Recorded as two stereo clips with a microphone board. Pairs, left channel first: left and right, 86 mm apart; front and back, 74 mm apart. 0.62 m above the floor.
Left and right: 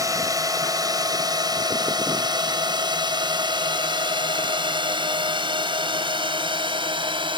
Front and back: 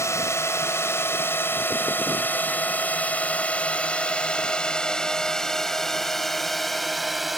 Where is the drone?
45° right; by 7.4 s 95° right.